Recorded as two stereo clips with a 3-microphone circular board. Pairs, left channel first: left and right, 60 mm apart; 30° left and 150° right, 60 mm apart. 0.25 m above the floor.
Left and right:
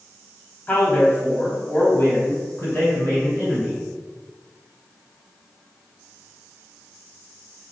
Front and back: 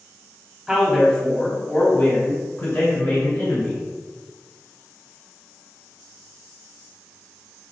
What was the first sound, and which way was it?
A man speaking, 130° left.